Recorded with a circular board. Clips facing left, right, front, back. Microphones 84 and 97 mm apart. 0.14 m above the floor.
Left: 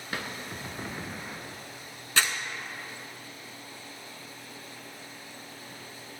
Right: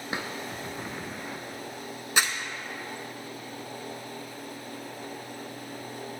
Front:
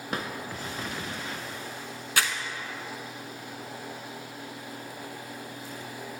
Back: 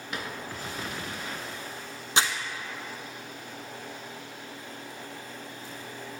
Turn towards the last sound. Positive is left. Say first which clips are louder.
# right 1 dB, back 2 dB
turn(degrees=-145)